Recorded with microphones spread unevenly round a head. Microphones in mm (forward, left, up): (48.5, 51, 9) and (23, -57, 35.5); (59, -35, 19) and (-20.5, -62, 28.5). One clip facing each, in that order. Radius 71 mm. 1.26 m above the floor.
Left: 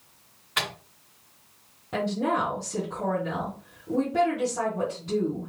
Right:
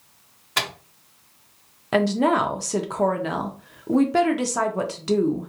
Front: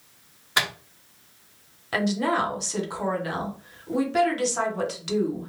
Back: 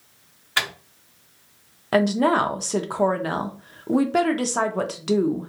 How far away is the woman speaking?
About 0.6 m.